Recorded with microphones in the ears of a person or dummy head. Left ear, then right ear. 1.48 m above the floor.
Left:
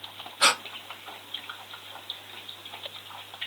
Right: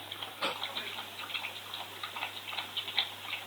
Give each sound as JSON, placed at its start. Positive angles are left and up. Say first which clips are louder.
{"t": 0.4, "sound": "breathing", "louder": "left 13 dB", "side_deg": 50}